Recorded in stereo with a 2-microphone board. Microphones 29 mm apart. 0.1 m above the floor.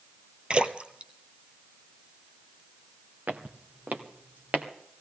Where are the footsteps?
65° right (ahead or behind), 1.6 m; by 4.7 s 85° right, 2.5 m.